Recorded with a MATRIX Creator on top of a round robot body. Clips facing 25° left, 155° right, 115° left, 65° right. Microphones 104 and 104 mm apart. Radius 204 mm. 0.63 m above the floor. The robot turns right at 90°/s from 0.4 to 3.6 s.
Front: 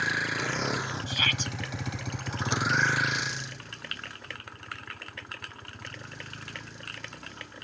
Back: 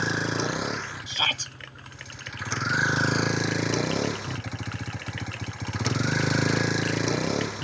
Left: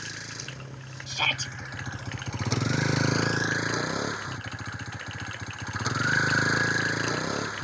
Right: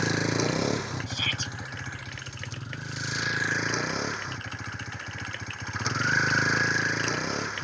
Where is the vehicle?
95° right; by 7.7 s 165° right.